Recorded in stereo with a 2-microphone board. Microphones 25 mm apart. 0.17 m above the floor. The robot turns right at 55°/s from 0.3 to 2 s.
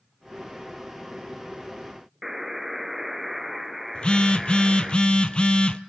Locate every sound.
2.2 s a buzzer: 5° right (ahead or behind), 1.6 m
4.0 s a phone buzzing: 40° left (ahead or behind), 0.7 m